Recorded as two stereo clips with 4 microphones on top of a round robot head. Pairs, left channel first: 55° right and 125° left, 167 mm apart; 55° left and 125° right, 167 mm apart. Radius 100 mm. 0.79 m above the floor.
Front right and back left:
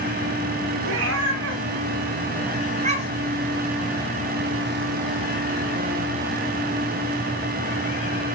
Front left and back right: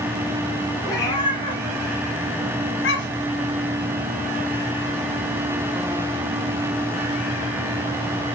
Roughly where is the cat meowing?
Behind left.